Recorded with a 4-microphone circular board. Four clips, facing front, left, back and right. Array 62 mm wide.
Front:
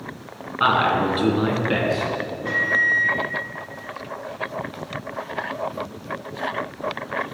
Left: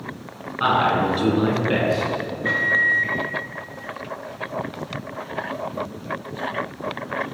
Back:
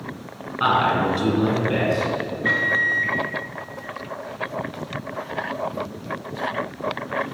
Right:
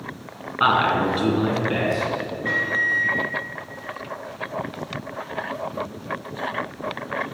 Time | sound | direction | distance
0.6 | a man speaking | 60° right | 1.4 m
2.4 | a microwave | 160° left | 1.4 m